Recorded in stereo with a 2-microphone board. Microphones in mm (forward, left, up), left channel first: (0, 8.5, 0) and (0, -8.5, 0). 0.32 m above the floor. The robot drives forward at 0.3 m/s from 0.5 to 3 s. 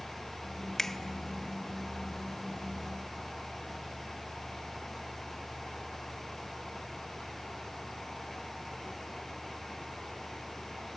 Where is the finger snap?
15° left (ahead or behind), 0.7 m.